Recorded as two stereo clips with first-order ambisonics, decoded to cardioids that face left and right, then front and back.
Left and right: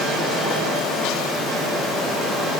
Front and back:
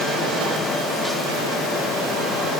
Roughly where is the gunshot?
No gunshot in this recording.